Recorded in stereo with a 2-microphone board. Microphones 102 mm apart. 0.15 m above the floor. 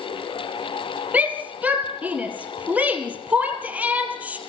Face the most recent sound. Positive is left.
turn(degrees=-15)  # may be behind; listen again after turning